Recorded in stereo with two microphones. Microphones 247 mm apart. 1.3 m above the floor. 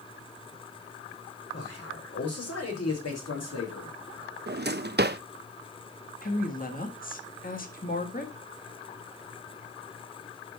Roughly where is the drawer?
Right.